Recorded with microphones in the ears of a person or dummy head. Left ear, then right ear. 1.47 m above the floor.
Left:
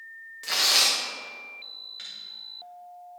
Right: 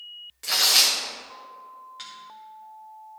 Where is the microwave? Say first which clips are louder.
Right 1 dB; 10° left (ahead or behind), 1.9 m.